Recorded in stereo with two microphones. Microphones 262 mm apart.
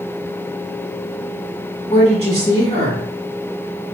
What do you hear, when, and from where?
1.9 s a woman speaking: 30° left (ahead or behind), 1.7 m